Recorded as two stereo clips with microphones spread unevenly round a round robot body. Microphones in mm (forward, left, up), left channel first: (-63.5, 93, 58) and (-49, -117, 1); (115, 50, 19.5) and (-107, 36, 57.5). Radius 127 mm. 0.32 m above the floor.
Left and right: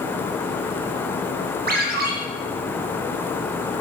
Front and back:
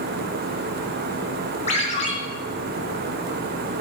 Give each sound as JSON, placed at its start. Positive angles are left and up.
{"t": 1.7, "sound": "a ringtone", "azimuth_deg": -50, "distance_m": 1.9}